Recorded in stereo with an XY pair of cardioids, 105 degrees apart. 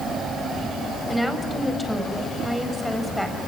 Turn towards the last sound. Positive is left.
turn(degrees=5)